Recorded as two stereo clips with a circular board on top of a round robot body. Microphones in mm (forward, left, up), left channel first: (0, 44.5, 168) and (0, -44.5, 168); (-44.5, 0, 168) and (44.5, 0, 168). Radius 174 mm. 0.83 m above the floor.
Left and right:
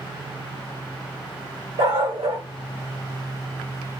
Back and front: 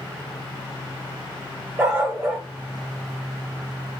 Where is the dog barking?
70° right, 1.1 m.